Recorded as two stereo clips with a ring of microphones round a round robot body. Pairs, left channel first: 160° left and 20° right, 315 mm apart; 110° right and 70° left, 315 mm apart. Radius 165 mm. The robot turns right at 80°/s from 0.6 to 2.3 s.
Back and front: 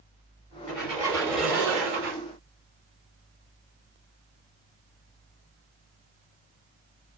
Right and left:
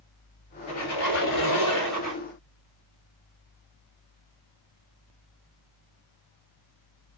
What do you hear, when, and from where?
0.7 s a squeak: 155° right, 2 m; by 2.2 s 30° right, 2 m